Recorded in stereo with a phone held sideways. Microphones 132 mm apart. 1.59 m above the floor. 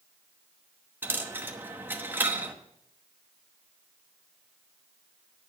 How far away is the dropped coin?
About 1.0 m.